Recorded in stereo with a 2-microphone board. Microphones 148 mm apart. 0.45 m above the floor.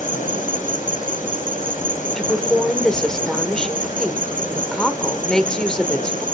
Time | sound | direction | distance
0.0 | an insect | 60° left (ahead or behind) | 4.5 m
2.1 | a woman speaking | 5° left (ahead or behind) | 1.4 m